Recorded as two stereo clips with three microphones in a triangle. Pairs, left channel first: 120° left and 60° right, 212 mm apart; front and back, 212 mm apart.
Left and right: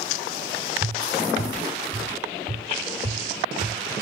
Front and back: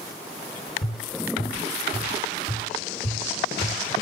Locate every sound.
0.8 s tapping: 25° right, 5 m